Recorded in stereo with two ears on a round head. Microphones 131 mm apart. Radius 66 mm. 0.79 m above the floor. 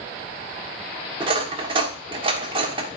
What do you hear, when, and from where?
1.2 s cutlery clinking: 35° right (ahead or behind), 1.3 m